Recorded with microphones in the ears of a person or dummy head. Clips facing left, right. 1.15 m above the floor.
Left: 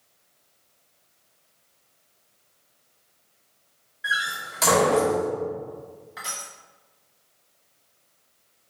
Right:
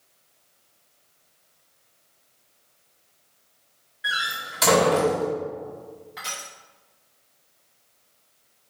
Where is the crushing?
5° left (ahead or behind), 0.9 m.